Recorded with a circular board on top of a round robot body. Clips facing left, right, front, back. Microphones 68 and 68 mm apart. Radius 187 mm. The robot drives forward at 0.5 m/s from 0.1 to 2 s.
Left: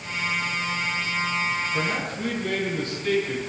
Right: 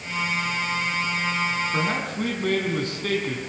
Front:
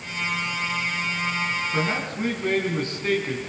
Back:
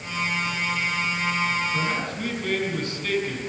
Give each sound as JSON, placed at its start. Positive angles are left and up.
{"t": 1.7, "sound": "a man speaking", "azimuth_deg": -60, "distance_m": 5.0}